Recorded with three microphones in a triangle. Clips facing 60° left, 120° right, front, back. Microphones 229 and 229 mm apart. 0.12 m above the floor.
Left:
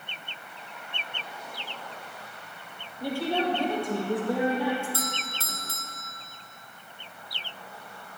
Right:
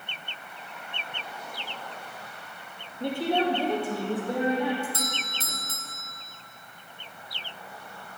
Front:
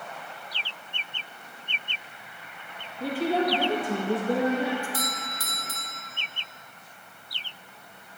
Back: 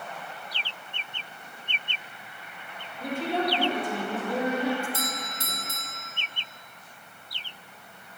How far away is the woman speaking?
About 3.5 m.